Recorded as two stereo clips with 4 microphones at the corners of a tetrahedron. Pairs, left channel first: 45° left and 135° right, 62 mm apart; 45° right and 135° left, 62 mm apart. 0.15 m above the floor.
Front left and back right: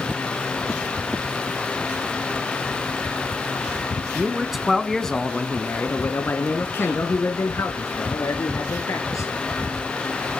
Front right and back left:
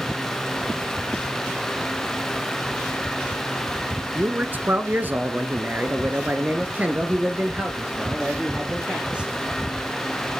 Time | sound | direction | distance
4.2 | a man speaking | 160° left | 1.2 m